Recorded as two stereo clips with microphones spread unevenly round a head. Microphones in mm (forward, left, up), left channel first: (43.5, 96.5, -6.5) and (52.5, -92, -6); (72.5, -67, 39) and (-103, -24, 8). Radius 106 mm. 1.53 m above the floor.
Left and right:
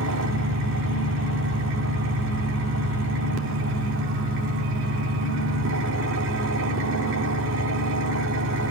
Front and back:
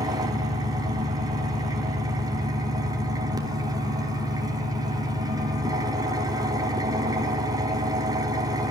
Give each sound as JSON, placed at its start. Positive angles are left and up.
{"t": 0.0, "sound": "an engine running", "azimuth_deg": -120, "distance_m": 3.5}